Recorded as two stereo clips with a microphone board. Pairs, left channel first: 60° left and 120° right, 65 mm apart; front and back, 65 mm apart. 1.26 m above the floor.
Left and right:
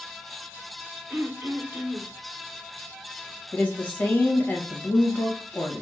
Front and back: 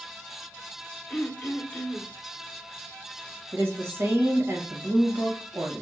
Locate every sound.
1.1 s throat clearing: 70° right, 0.8 m
3.5 s a woman speaking: 130° left, 1.2 m